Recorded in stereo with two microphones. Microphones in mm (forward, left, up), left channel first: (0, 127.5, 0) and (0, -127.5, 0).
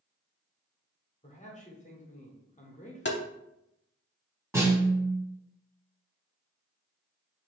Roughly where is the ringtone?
No ringtone in this recording.